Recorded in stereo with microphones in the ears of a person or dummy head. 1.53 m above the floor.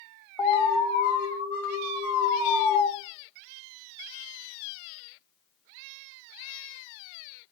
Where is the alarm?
5° left (ahead or behind), 0.9 m.